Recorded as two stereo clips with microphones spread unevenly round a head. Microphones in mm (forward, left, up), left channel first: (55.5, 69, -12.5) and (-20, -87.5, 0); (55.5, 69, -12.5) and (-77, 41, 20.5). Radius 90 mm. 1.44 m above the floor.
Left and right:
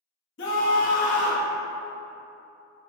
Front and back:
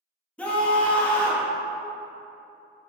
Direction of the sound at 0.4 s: 95° left.